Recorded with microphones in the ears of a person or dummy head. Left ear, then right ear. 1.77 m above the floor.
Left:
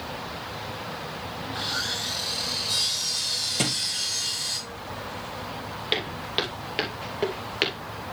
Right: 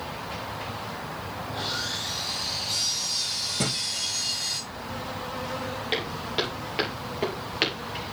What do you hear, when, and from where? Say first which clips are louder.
1.4 s sawing: left 2 dB; 30° left (ahead or behind), 4 m
3.6 s a thud: left 1 dB; 30° left (ahead or behind), 2 m
5.9 s footsteps: left 2 dB; 20° left (ahead or behind), 3 m; by 7.8 s centre (ahead or behind), 2 m